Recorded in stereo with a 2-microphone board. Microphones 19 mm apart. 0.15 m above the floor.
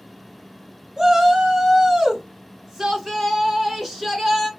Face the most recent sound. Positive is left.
turn(degrees=0)  # may be behind; listen again after turning